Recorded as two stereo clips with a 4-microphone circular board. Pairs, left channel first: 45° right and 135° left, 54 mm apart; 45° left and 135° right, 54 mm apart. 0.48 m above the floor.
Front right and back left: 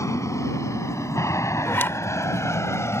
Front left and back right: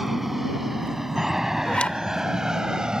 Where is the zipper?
20° right.